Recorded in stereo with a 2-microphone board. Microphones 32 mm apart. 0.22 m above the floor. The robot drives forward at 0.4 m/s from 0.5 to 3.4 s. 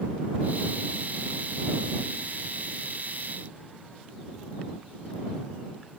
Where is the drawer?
I don't hear a drawer.